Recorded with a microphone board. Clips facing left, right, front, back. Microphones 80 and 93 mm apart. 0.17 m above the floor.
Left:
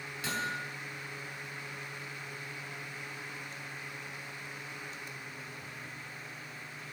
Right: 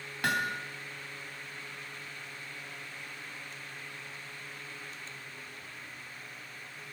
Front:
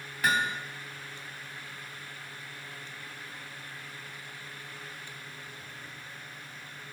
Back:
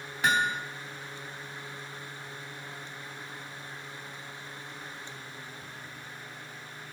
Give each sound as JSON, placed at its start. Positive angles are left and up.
{"t": 0.2, "sound": "hammering", "azimuth_deg": -115, "distance_m": 3.0}